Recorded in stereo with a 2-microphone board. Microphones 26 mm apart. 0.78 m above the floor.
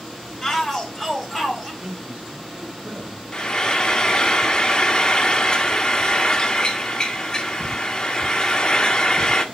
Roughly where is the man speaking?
Right.